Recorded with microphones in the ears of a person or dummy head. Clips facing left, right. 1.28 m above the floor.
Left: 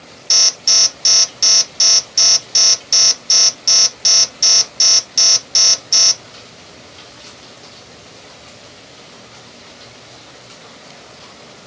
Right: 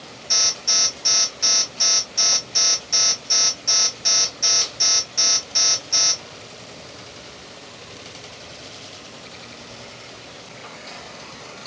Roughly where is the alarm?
Left.